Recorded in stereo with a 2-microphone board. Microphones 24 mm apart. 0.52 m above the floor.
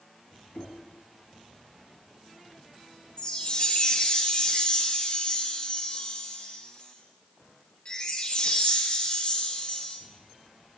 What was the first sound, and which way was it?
Knocking, 75° left (ahead or behind).